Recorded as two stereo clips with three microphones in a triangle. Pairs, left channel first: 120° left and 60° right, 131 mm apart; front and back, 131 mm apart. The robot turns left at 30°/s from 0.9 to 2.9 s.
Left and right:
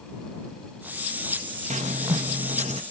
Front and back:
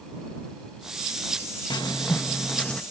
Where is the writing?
50° right; by 2.8 s 85° right.